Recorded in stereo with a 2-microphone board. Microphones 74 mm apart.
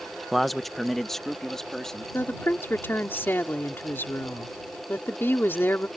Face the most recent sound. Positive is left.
turn(degrees=30)  # may be behind; listen again after turning